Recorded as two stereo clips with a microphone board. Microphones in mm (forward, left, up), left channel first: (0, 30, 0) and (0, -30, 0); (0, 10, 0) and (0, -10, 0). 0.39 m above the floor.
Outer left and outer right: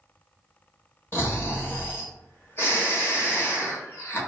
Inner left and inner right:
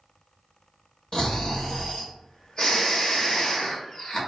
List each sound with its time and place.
1.1 s snoring: 40° left (ahead or behind), 1.0 m